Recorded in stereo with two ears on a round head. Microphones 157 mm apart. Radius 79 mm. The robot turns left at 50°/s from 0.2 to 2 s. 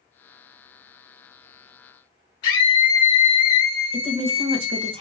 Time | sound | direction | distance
2.4 | a scream | 25° left (ahead or behind) | 1.4 m
3.9 | a woman speaking | 35° right (ahead or behind) | 0.8 m